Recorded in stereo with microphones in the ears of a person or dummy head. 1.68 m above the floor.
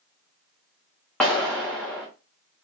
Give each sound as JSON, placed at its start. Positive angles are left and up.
{"t": 1.2, "sound": "a clap", "side_deg": 5, "distance_m": 0.5}